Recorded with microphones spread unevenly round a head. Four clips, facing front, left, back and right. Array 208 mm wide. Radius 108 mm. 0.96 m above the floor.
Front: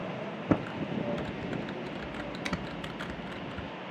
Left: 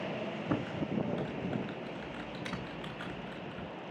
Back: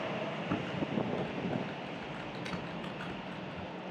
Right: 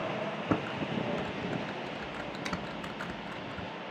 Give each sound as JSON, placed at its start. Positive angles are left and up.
{"t": 0.5, "sound": "typing on a keyboard", "azimuth_deg": -35, "distance_m": 0.7}